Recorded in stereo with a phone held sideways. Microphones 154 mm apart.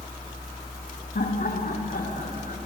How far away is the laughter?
About 3 m.